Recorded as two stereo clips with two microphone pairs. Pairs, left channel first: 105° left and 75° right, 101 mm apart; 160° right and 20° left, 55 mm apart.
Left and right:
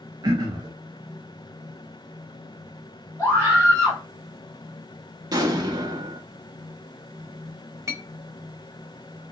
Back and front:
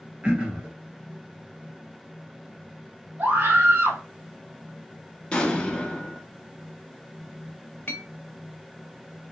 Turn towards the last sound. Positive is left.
turn(degrees=-120)